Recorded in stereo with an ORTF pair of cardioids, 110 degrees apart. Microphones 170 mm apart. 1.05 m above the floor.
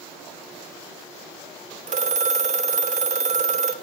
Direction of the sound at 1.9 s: 45° right.